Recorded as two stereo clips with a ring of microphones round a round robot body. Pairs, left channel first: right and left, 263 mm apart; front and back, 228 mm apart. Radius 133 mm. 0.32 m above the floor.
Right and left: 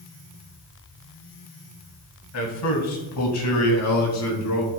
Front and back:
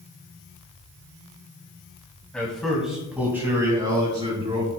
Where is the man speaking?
85° right, 2.5 m; by 4.7 s 110° right, 3.5 m.